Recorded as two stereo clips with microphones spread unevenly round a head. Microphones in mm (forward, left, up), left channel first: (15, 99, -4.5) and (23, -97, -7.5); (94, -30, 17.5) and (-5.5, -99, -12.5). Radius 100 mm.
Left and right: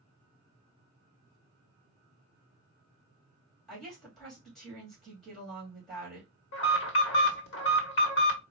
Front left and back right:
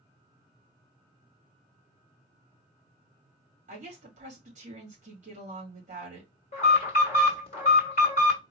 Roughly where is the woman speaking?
Behind.